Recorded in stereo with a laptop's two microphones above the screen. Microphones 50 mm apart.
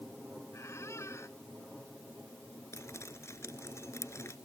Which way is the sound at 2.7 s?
70° left (ahead or behind).